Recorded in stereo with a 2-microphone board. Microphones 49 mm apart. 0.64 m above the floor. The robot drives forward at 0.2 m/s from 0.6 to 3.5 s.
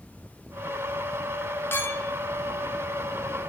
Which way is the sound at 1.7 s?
45° left (ahead or behind).